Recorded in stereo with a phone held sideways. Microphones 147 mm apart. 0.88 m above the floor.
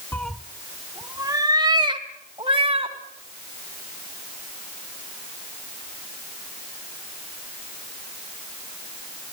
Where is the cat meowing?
10° left (ahead or behind), 0.6 m; by 3.0 s 40° right (ahead or behind), 2.5 m.